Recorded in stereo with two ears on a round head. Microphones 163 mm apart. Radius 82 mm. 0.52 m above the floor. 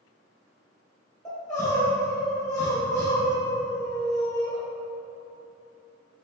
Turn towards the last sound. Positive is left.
turn(degrees=20)  # may be behind; listen again after turning